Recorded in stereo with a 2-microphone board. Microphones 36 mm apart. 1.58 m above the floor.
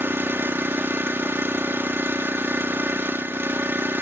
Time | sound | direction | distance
0.0 | an engine running | 85° right | ?